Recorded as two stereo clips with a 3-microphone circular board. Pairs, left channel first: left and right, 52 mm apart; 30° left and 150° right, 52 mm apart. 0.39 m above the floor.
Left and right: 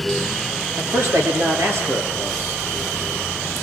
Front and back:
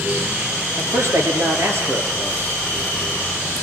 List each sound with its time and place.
0.8 s a man speaking: 125° right, 7.5 m; by 2.6 s 115° right, 8 m